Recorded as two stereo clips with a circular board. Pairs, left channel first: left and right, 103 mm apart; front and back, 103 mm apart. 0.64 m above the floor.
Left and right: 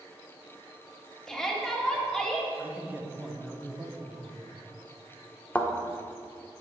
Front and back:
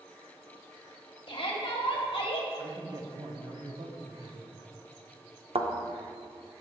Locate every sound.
1.3 s a shout: 5° left, 1.1 m
2.6 s a man speaking: 160° right, 0.8 m
5.5 s a thud: 165° left, 0.6 m